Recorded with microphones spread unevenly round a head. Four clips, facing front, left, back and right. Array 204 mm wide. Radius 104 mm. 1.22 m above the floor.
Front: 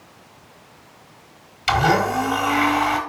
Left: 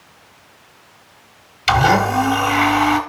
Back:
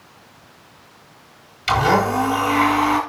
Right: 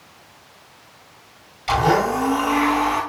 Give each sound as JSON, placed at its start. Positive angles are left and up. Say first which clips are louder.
{"t": 1.7, "sound": "a blender", "louder": "left 3 dB, back 1 dB", "azimuth_deg": 95, "distance_m": 4.5}